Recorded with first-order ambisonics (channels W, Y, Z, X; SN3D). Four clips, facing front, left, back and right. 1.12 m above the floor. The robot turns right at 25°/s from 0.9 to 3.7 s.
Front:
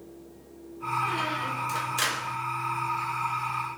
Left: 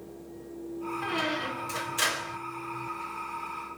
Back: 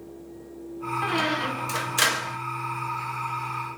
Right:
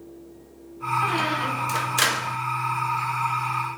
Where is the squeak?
150° right, 0.6 m; by 2.4 s 115° right, 0.6 m.